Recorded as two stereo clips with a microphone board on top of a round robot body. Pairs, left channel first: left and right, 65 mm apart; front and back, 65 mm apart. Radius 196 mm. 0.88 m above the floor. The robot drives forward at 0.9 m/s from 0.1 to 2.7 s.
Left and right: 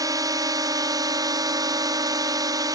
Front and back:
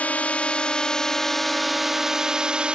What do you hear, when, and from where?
0.0 s a drone: 70° right; by 2.8 s 105° right